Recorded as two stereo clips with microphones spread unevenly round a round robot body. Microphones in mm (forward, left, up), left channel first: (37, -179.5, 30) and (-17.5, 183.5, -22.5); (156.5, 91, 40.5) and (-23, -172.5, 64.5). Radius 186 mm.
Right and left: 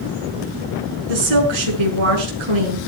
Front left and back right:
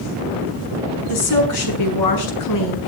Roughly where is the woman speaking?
Left.